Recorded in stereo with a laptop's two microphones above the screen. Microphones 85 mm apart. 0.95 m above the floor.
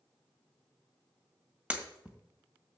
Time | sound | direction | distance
1.7 | breaking glass | 15° right (ahead or behind) | 1.9 m